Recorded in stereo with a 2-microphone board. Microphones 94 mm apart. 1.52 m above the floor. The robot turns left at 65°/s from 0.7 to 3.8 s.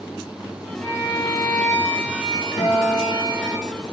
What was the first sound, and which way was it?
A violin, 170° left.